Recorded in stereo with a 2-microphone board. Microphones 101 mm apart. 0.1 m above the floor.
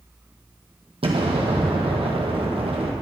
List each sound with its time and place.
1.0 s an explosion: 70° right (ahead or behind), 1.9 m